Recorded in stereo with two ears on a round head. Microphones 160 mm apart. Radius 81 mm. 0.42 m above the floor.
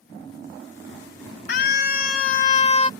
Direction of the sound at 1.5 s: 55° left (ahead or behind).